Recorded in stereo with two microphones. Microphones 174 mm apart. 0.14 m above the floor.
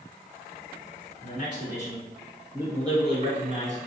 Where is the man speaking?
40° left (ahead or behind), 1.3 m; by 3.8 s 45° right (ahead or behind), 1.6 m.